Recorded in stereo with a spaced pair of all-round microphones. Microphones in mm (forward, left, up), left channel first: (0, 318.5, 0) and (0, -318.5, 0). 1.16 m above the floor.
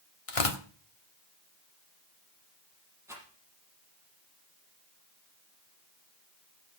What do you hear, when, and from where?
0.3 s tearing paper: 55° left (ahead or behind), 1.4 m
3.1 s a rattle: 5° right (ahead or behind), 5.5 m